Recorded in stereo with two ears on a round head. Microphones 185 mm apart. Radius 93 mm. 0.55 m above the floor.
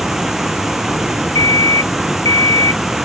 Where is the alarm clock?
15° left (ahead or behind).